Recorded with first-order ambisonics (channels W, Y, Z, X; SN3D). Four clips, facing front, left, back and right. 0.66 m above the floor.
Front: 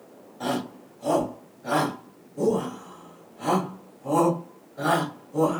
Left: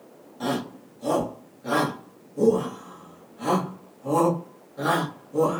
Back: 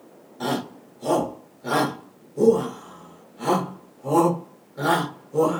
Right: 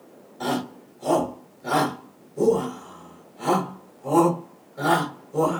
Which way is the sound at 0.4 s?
175° right.